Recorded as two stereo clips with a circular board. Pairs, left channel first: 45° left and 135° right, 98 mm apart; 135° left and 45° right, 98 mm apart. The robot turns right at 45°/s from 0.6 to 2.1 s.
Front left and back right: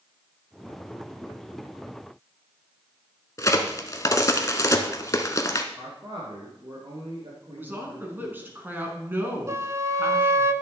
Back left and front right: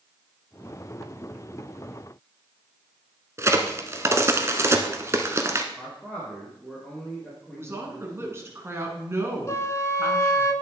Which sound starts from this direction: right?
A woman speaking, at 7.5 s.